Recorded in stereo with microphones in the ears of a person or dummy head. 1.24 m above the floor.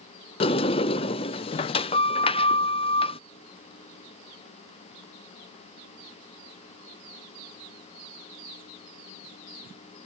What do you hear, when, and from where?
0.4 s a sliding door: 30° left (ahead or behind)